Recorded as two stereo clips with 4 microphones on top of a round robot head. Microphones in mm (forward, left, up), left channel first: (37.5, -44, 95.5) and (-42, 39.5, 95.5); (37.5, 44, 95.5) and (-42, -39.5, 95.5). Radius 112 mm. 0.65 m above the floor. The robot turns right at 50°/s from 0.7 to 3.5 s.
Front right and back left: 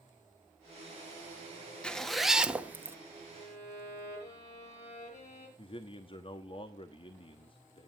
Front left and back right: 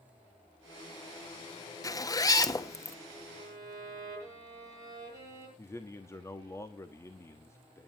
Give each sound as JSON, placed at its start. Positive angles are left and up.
{"t": 1.8, "sound": "a zipper", "azimuth_deg": 25, "distance_m": 1.3}
{"t": 3.3, "sound": "a violin", "azimuth_deg": -80, "distance_m": 7.0}
{"t": 5.6, "sound": "a man speaking", "azimuth_deg": -15, "distance_m": 1.1}